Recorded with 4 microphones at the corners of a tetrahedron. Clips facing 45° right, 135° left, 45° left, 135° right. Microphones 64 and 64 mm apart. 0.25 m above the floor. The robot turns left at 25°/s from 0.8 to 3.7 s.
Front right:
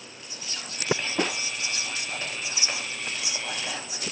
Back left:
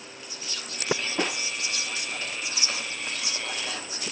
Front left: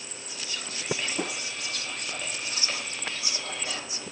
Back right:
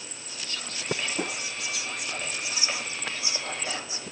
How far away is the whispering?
About 1.1 m.